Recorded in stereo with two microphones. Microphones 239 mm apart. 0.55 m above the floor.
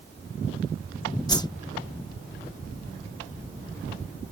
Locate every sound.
1.3 s a whoosh: 15° left (ahead or behind)